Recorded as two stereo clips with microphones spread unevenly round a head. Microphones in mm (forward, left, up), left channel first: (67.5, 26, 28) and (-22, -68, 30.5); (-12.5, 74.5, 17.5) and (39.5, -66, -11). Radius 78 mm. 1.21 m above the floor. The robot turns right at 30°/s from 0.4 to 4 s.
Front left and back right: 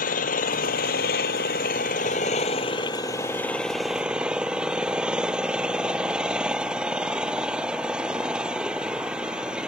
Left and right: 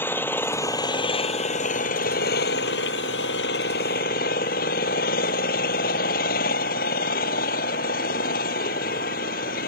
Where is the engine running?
35° left; by 9.7 s 145° left.